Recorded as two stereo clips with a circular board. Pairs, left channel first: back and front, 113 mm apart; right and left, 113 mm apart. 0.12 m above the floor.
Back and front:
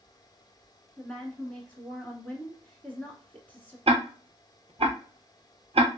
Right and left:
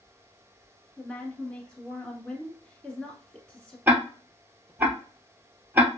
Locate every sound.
1.0 s a woman speaking: 150° right, 1.0 m
3.9 s ticking: 20° left, 0.6 m